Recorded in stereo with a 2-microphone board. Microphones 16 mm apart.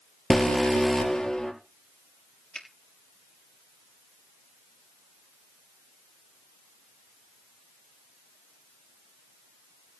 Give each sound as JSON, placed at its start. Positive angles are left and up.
{"t": 0.3, "sound": "an alarm", "side_deg": 45, "distance_m": 3.5}
{"t": 2.5, "sound": "a finger snap", "side_deg": 55, "distance_m": 3.0}